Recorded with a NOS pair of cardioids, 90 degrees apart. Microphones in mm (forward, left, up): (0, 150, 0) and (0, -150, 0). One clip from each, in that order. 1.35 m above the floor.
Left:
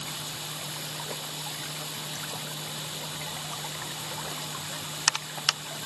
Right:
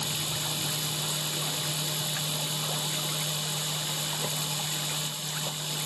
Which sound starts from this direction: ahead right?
A machine running, at 0.0 s.